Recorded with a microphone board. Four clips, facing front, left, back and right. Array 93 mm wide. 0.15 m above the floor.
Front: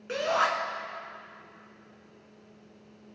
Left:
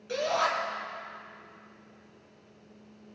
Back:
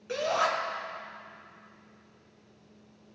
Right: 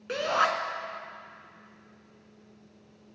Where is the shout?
65° right, 2 m.